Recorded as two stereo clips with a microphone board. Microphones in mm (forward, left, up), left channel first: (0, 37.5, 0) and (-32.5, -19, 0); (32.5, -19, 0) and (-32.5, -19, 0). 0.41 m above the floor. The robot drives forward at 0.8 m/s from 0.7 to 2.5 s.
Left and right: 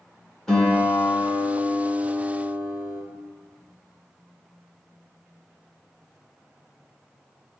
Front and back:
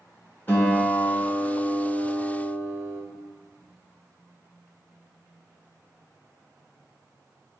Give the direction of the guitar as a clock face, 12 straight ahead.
12 o'clock.